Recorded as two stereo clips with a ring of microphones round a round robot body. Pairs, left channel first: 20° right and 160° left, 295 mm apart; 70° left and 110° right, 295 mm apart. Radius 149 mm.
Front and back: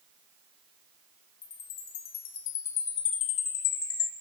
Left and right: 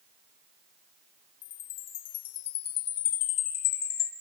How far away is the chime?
About 4 m.